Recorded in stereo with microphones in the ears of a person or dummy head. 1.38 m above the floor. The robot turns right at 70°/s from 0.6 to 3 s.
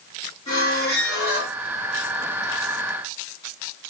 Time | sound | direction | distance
0.5 | a squeak | 145° left | 1.1 m